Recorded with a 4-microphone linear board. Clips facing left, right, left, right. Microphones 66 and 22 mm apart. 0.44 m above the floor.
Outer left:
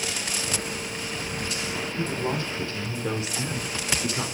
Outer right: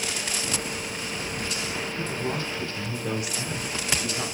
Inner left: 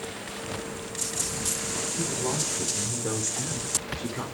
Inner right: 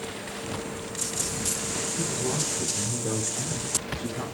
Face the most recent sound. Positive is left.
turn(degrees=30)  # may be behind; listen again after turning